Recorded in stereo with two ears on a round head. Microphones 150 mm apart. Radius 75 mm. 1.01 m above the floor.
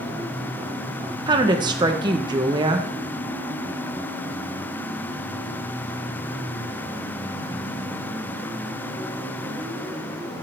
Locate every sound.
1.3 s a woman speaking: 25° right (ahead or behind), 0.9 m